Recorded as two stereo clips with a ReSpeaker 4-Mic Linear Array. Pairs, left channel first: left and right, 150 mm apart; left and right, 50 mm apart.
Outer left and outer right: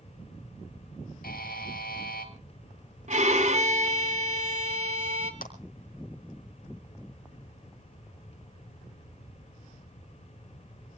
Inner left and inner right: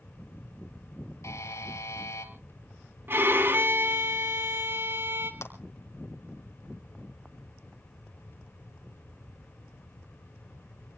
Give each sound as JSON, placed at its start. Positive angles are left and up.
{"t": 1.2, "sound": "a buzzer", "side_deg": 90, "distance_m": 2.0}
{"t": 3.1, "sound": "a violin", "side_deg": -55, "distance_m": 1.7}
{"t": 5.4, "sound": "a clap", "side_deg": 75, "distance_m": 3.5}